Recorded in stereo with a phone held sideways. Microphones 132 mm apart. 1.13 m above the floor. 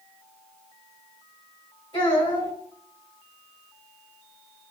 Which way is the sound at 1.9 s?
40° left (ahead or behind).